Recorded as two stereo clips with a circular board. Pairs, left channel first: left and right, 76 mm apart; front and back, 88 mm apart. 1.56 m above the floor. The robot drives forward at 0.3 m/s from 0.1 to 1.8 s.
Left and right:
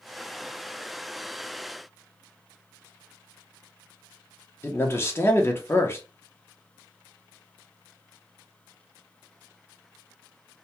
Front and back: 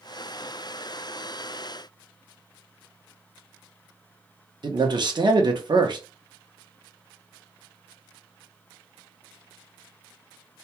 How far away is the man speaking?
About 0.7 m.